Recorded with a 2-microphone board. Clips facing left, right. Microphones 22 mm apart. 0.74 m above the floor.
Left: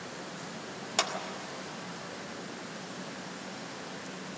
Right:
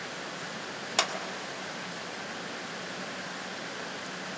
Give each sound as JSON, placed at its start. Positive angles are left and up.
{"t": 1.0, "sound": "a clap", "side_deg": -15, "distance_m": 1.8}